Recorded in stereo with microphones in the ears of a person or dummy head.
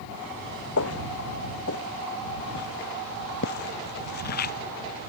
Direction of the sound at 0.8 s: 70° left (ahead or behind).